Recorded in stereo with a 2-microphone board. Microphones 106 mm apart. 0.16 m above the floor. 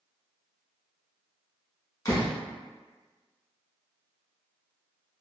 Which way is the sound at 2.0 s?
40° left (ahead or behind).